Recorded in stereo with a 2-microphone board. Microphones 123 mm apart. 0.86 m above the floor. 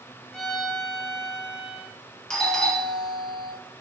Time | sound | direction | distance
0.3 | a violin | 5° left (ahead or behind) | 0.8 m
2.3 | a doorbell | 5° left (ahead or behind) | 0.9 m